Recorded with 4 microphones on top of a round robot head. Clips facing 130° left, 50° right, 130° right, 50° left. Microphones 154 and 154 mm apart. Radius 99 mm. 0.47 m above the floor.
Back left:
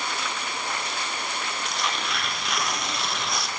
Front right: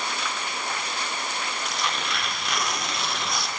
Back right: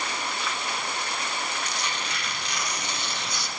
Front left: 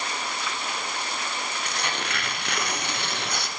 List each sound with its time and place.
1.6 s tearing paper: 40° left, 0.7 m